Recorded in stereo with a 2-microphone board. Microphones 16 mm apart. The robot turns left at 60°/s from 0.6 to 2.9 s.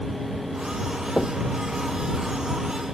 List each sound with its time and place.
1.2 s knocking: 65° left (ahead or behind); by 1.4 s 75° left (ahead or behind)